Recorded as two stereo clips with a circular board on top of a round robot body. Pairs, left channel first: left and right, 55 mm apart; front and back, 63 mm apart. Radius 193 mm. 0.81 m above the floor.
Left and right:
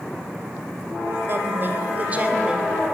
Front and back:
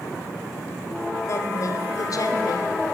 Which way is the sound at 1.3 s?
45° right.